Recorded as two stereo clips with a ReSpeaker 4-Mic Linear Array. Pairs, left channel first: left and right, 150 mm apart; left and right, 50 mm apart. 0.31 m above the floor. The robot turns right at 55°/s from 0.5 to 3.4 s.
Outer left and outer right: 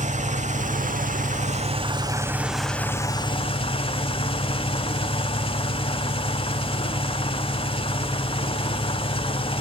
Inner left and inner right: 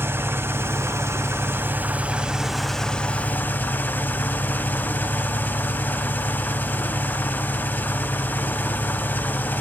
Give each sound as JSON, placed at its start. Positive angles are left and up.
{"t": 0.0, "sound": "an engine running", "azimuth_deg": -115, "distance_m": 0.8}